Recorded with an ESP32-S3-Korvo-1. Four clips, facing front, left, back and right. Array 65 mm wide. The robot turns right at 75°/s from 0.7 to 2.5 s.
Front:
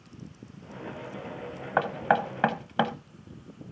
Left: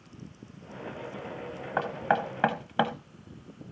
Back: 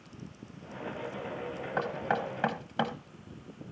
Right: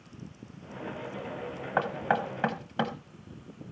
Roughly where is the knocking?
Ahead.